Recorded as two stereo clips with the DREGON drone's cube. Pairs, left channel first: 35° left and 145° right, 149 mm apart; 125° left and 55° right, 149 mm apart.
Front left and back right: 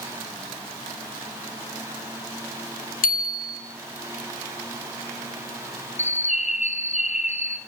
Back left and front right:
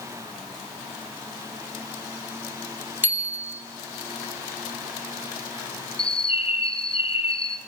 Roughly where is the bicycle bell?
Ahead.